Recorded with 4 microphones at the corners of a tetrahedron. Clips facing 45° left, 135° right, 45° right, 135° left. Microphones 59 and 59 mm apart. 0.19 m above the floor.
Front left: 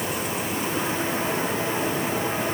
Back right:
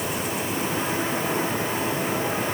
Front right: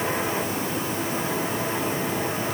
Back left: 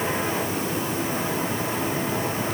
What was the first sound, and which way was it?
Only background noise.